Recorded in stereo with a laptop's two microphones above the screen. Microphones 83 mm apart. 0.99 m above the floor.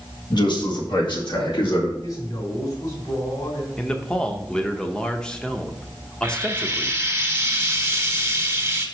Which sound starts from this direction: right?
Frying, at 6.2 s.